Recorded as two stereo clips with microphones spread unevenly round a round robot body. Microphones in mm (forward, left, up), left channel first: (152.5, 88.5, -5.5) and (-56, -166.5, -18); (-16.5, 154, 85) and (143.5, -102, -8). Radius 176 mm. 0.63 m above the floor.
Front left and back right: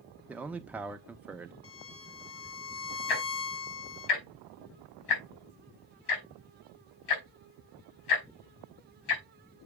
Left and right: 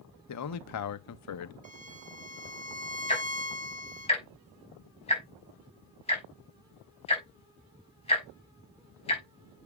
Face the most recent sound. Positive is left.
turn(degrees=50)